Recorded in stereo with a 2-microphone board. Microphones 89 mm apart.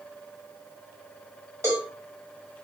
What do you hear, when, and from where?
1.6 s a cowbell: 35° right (ahead or behind), 2.0 m